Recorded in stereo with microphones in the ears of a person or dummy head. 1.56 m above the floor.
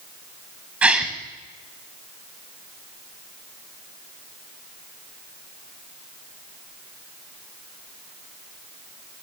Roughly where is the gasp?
Centre.